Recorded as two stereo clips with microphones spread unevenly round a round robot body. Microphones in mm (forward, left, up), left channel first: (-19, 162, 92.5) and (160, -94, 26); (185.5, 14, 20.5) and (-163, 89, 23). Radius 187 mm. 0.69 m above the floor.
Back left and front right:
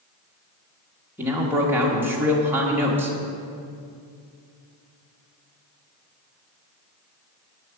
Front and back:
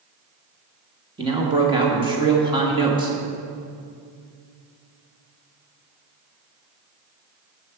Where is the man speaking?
120° right, 1.3 m.